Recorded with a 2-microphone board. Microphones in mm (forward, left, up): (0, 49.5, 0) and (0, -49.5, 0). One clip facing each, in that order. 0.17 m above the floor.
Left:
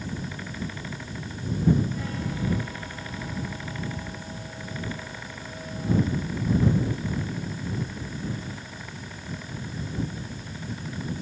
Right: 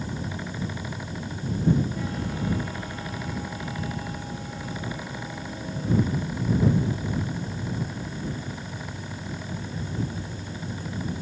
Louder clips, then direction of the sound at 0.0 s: Right 2 dB; 30° right (ahead or behind).